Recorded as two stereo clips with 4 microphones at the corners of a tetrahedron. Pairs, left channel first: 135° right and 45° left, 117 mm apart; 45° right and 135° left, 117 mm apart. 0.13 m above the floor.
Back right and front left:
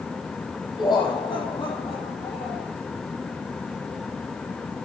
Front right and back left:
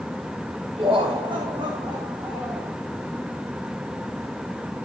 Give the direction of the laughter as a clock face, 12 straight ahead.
6 o'clock.